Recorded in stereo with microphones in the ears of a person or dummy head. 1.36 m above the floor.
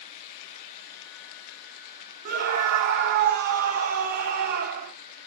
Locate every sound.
2.2 s a scream: 50° right (ahead or behind), 1.0 m